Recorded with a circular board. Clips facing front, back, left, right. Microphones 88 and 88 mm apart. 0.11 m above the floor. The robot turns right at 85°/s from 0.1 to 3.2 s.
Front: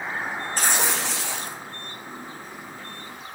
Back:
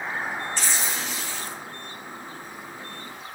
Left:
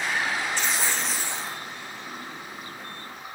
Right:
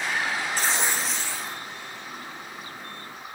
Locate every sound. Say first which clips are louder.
0.6 s tearing paper: front 4 dB, right 1 dB; 45° right, 1.2 m; by 1.6 s 40° left, 1.2 m